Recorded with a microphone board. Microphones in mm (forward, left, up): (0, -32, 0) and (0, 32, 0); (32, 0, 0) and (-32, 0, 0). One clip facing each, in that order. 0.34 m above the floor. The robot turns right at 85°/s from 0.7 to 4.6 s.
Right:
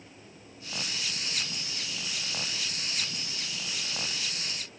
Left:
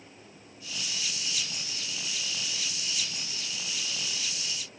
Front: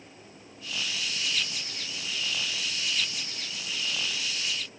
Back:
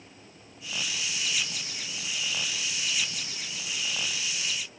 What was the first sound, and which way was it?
Only background noise.